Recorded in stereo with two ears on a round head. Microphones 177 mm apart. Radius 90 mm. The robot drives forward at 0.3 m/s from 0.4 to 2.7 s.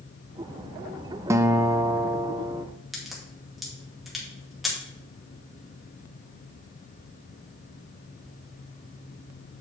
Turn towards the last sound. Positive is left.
turn(degrees=0)  # may be behind; listen again after turning